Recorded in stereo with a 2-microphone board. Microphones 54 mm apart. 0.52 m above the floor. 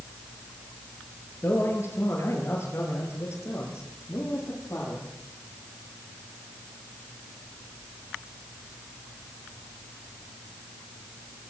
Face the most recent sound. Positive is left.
turn(degrees=60)  # may be behind; listen again after turning